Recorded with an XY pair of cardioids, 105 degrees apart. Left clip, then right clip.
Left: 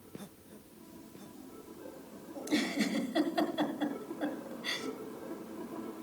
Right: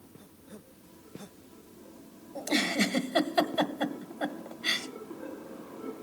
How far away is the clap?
I don't hear a clap.